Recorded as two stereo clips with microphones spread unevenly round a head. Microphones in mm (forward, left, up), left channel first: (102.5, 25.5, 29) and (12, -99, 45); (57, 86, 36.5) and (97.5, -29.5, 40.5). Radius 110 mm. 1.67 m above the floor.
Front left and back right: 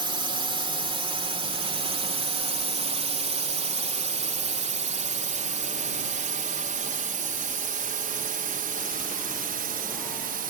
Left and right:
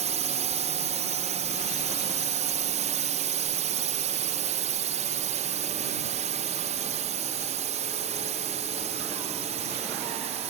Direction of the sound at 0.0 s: 70° right.